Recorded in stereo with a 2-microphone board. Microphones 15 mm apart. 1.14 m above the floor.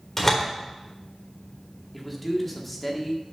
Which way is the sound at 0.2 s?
25° left (ahead or behind).